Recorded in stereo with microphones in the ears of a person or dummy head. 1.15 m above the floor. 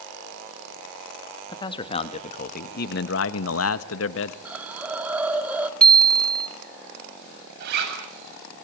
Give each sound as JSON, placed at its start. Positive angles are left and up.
{"t": 1.5, "sound": "a man speaking", "side_deg": 20, "distance_m": 1.8}
{"t": 4.5, "sound": "a hiss", "side_deg": -10, "distance_m": 1.5}
{"t": 5.8, "sound": "a bicycle bell", "side_deg": 10, "distance_m": 2.0}
{"t": 7.6, "sound": "a zipper", "side_deg": -60, "distance_m": 7.5}